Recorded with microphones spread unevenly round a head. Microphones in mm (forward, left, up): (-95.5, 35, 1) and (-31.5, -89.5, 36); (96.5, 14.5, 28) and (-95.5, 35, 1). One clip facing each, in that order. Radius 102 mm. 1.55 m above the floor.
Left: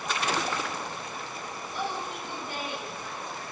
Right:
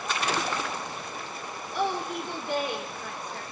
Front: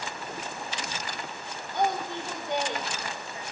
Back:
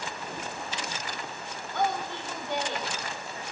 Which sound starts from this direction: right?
A woman speaking, at 1.7 s.